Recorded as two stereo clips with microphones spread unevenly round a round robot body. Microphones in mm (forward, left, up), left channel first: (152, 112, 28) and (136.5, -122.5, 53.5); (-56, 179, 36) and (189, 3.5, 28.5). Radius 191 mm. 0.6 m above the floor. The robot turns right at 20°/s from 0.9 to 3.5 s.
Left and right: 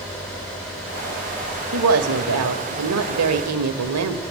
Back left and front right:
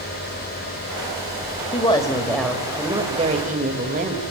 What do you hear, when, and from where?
1.7 s a woman speaking: 140° right, 2 m; by 4.2 s 105° right, 2 m